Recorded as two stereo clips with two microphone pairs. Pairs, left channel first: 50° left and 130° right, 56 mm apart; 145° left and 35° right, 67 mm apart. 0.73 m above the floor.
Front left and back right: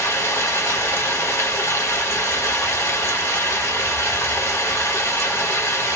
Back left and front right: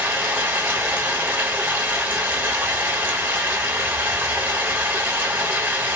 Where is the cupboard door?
No cupboard door in this recording.